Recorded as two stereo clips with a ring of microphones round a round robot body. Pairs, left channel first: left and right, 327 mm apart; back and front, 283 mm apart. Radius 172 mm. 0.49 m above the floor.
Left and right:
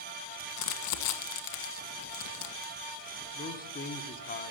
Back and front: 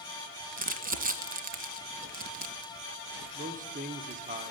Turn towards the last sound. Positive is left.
turn(degrees=45)